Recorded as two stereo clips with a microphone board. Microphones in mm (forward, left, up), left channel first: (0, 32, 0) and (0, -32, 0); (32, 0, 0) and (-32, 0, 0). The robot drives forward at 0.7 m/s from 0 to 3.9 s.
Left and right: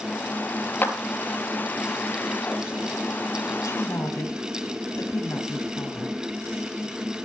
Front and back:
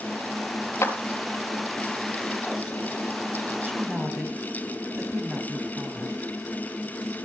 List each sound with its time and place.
0.8 s a clap: 35° left, 2 m
3.6 s a woman speaking: 125° left, 3 m